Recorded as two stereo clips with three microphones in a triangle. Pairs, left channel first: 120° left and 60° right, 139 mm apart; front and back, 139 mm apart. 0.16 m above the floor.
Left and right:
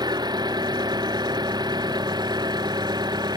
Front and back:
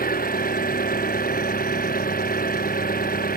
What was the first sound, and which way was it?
An engine running, straight ahead.